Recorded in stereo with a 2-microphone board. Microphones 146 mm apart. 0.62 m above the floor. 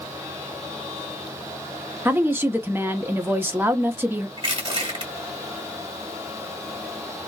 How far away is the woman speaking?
About 0.9 m.